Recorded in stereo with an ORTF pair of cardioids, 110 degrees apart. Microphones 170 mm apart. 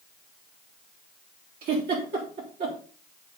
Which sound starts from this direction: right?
A giggle, at 1.6 s.